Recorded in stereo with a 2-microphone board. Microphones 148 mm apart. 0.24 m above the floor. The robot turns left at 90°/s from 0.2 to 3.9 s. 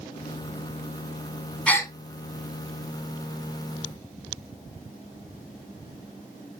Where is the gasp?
5° left (ahead or behind), 0.7 m; by 1.9 s 25° left (ahead or behind), 0.7 m.